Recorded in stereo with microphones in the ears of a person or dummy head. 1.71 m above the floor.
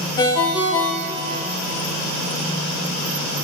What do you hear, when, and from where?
0.2 s a ringtone: 25° left (ahead or behind), 0.9 m